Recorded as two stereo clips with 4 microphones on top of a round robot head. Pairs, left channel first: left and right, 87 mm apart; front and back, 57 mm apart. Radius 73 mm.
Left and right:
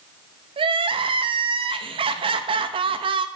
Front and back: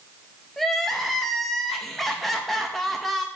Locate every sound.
0.6 s crying: 85° right, 0.5 m